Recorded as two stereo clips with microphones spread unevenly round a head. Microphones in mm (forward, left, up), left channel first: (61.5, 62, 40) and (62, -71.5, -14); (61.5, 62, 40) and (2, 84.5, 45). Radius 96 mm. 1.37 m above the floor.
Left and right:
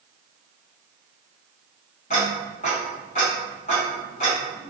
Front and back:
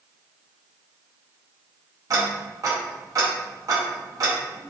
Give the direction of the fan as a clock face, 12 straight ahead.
I don't hear a fan.